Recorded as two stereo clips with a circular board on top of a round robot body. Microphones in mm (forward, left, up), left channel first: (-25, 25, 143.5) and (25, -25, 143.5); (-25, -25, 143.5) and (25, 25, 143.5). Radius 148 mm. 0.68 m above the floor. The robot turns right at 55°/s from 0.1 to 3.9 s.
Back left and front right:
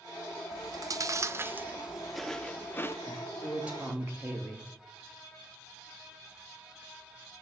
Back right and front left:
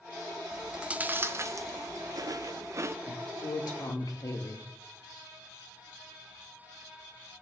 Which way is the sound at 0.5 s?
45° right.